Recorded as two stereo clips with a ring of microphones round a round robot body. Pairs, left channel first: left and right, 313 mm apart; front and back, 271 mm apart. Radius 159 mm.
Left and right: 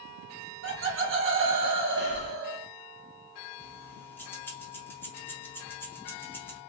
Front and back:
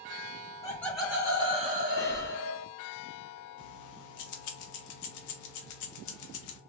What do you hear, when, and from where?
0.6 s laughter: 70° right, 0.9 m; by 2.7 s 145° right, 1.3 m
2.0 s breathing: 75° left, 0.6 m
3.6 s keys jangling: 5° left, 0.6 m